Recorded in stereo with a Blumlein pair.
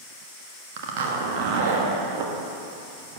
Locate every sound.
0.8 s a zipper: 50° right, 1.4 m